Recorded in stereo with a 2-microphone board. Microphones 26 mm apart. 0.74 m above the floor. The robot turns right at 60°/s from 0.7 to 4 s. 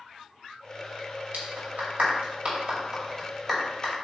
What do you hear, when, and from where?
1.3 s a clap: 55° right (ahead or behind), 3 m; by 3.9 s 30° left (ahead or behind), 3 m